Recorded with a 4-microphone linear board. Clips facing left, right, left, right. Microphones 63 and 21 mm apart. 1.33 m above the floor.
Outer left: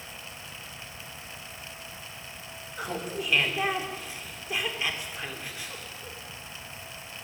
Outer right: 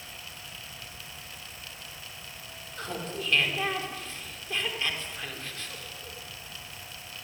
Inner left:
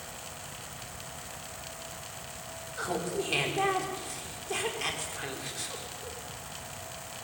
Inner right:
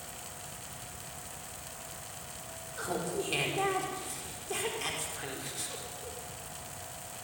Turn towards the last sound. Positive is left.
turn(degrees=10)  # may be behind; listen again after turning